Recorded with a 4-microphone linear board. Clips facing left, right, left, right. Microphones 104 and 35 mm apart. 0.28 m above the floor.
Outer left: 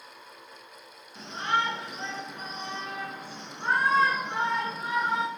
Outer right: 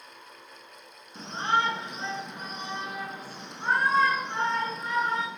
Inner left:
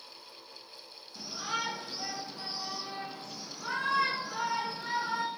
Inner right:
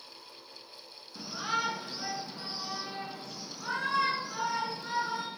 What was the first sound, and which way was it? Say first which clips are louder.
A shout: outer right 2 dB, inner right 3 dB; 35° right (ahead or behind).